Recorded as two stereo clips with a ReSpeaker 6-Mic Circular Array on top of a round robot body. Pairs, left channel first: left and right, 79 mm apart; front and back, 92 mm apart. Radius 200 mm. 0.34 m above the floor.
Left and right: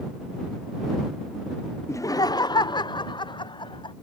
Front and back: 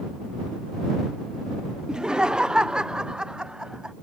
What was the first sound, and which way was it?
Laughter, 105° left.